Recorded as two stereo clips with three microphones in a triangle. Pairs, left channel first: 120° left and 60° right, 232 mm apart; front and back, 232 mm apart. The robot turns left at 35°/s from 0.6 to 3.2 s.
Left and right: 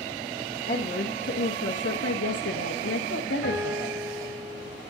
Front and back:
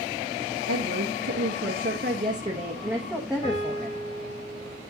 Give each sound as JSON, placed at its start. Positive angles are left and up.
{"t": 0.7, "sound": "a woman speaking", "azimuth_deg": 180, "distance_m": 1.6}
{"t": 3.4, "sound": "a piano", "azimuth_deg": -65, "distance_m": 4.5}